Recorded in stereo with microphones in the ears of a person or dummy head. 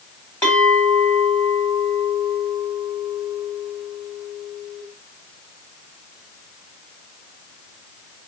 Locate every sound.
0.4 s a clink: 15° left (ahead or behind), 2.5 m